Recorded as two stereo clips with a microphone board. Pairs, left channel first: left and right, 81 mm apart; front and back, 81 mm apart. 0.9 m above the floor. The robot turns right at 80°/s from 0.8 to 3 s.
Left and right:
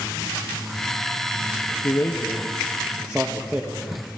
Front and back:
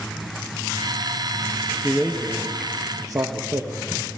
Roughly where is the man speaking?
Left.